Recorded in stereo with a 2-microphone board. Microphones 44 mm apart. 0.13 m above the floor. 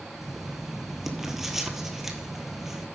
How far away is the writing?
About 1.0 m.